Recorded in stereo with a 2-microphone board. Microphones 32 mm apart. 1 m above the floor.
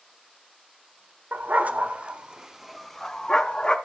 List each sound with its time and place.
1.3 s a dog barking: 65° right (ahead or behind), 1.3 m; by 3.8 s 30° left (ahead or behind), 1.6 m